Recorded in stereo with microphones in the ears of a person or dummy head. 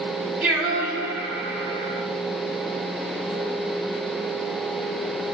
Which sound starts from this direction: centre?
Singing, at 0.4 s.